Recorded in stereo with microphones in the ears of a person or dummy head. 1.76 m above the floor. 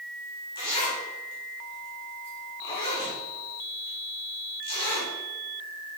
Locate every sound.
0.6 s a zipper: 25° left (ahead or behind), 4 m